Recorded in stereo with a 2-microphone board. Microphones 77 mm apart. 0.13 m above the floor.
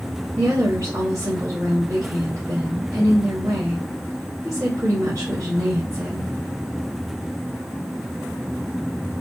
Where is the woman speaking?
45° right (ahead or behind), 2.0 m.